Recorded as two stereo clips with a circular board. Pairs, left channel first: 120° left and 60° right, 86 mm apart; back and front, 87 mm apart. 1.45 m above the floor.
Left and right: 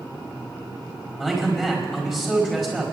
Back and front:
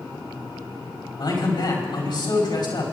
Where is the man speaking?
150° right, 5 m.